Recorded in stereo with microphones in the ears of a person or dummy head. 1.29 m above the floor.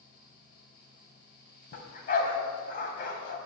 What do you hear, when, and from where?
0.0 s a fan: 50° left (ahead or behind), 6 m
1.7 s a dog barking: 50° left (ahead or behind), 2.5 m